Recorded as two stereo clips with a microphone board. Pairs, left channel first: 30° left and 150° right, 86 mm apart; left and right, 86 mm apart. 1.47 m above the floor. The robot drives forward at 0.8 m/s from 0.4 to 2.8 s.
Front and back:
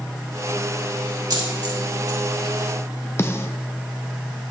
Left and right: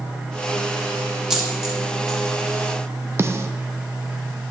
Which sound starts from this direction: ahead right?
A snare drum, at 3.2 s.